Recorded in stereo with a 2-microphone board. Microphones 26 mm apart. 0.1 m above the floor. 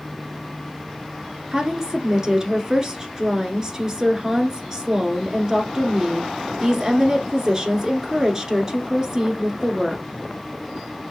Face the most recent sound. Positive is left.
turn(degrees=-20)  # may be behind; listen again after turning